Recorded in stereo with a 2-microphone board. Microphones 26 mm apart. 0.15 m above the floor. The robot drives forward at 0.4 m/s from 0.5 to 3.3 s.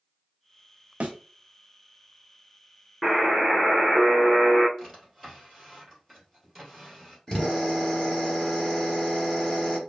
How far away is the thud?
About 0.8 m.